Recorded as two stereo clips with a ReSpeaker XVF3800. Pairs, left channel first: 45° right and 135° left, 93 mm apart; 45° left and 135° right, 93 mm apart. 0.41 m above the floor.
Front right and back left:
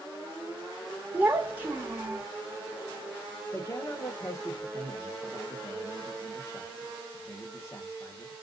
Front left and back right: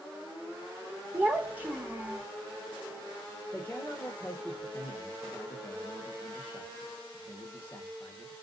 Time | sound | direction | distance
1.1 | a child speaking | straight behind | 0.8 m
3.5 | a man speaking | 10° right | 1.0 m